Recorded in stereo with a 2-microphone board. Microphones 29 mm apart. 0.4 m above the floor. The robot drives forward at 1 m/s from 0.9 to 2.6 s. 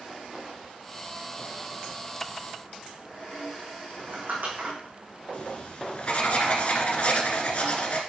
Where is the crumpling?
75° right (ahead or behind), 4 m.